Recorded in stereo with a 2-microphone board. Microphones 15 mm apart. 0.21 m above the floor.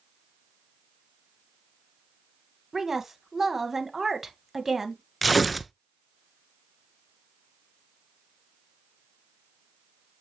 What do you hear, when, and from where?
2.7 s a woman speaking: 25° right (ahead or behind), 1.3 m
5.2 s tearing paper: centre (ahead or behind), 0.6 m